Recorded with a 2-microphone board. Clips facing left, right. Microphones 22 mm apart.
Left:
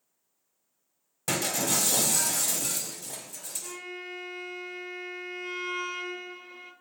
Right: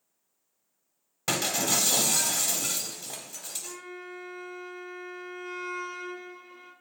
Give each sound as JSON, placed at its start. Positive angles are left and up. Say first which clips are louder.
{"t": 1.3, "sound": "breaking glass", "louder": "right 1 dB", "side_deg": -35, "distance_m": 0.8}
{"t": 3.6, "sound": "a violin", "louder": "left 2 dB", "side_deg": 60, "distance_m": 0.6}